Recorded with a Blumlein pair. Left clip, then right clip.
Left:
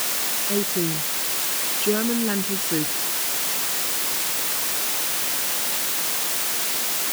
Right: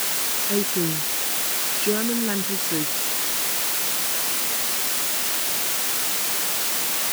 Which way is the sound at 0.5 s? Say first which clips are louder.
Even; straight ahead.